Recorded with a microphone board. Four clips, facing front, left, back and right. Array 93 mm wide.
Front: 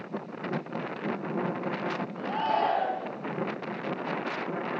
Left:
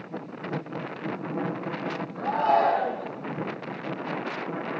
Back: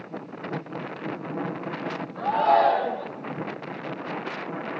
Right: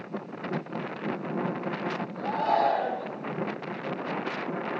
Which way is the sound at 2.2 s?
170° left.